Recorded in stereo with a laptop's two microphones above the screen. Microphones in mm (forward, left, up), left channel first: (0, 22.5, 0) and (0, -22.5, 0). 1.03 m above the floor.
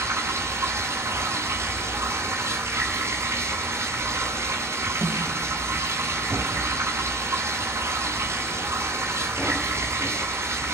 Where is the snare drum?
70° right (ahead or behind), 6 m.